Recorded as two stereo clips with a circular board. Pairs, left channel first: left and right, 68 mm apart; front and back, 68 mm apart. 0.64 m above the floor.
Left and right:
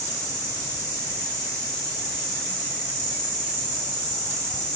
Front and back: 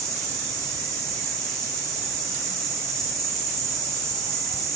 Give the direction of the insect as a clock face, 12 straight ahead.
9 o'clock.